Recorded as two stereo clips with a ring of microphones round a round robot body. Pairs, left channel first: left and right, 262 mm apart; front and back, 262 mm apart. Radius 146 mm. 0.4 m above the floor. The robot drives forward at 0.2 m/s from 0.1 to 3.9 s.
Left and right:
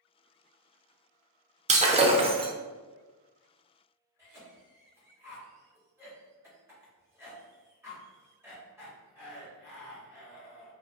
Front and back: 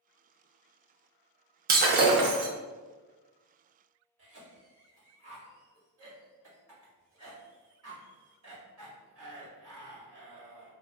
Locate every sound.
1.7 s breaking glass: 145° right, 0.5 m; by 2.5 s 155° right, 0.6 m
4.2 s a cough: 170° right, 1.8 m